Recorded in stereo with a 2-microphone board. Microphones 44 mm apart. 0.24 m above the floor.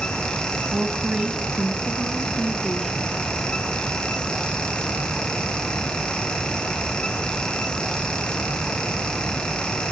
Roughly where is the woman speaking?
Centre.